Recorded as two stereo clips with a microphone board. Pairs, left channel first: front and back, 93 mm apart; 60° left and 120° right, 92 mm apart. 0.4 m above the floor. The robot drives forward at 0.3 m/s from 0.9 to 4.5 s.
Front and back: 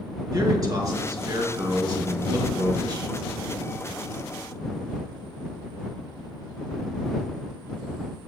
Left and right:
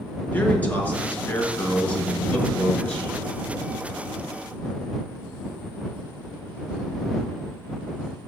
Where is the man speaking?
130° left, 5 m; by 3.1 s 140° left, 5 m.